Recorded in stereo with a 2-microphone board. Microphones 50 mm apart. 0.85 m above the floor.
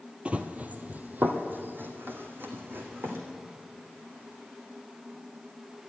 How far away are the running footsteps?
About 0.9 m.